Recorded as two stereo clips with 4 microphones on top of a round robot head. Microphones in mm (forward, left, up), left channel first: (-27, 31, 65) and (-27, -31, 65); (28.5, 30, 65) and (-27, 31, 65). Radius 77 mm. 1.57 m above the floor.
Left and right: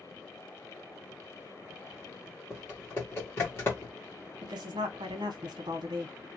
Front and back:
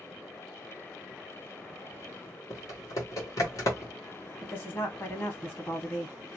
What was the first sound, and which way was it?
Typing on a keyboard, 30° left.